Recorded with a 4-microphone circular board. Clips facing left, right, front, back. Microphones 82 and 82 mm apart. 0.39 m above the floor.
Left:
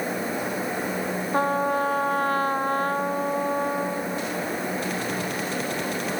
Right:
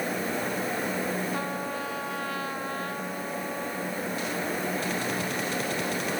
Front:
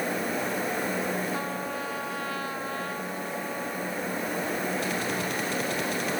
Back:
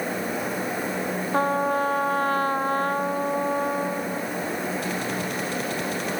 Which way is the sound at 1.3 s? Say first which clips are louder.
Left 9 dB, back 10 dB; 135° left.